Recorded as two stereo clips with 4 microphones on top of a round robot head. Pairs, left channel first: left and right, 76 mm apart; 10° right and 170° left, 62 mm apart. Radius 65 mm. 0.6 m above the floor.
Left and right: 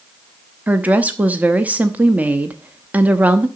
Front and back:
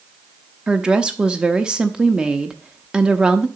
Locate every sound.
0.7 s a woman speaking: 130° right, 0.8 m